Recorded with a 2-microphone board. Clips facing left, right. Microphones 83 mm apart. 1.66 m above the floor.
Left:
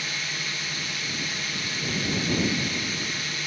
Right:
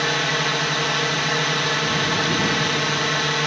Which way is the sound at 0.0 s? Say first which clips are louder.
Right 12 dB; 75° right (ahead or behind).